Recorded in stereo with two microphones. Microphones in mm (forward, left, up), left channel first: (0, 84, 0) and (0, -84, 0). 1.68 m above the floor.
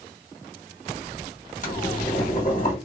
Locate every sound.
1.6 s boiling: 50° left (ahead or behind), 1.6 m